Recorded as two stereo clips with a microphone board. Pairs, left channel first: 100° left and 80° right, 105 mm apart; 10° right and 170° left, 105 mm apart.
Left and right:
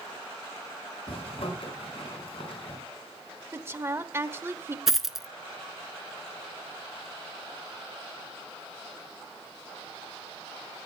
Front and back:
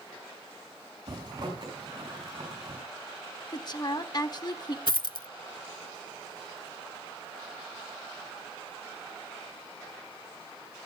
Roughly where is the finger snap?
No finger snap in this recording.